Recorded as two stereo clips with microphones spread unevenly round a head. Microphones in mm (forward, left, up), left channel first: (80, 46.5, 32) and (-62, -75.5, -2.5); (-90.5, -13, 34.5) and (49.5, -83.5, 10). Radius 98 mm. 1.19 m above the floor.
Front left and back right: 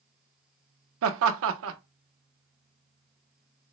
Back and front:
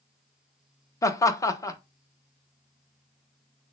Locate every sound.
1.0 s laughter: 135° right, 0.8 m